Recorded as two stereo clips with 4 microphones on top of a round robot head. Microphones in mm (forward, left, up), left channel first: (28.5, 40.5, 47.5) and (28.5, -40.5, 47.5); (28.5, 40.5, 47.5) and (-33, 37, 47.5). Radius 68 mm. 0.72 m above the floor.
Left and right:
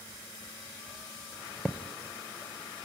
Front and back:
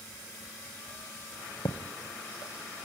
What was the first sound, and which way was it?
A thud, straight ahead.